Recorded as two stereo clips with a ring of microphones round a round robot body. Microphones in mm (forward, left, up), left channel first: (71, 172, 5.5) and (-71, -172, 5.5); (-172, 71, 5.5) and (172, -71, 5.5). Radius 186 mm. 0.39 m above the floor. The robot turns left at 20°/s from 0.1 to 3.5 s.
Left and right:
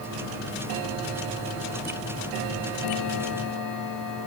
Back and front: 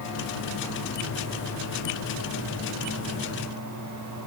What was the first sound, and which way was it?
Only background noise.